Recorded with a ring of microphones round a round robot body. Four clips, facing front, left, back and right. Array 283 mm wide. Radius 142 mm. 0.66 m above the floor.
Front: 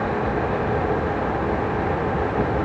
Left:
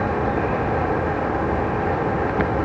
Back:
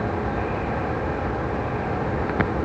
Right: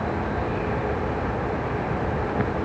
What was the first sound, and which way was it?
Only background noise.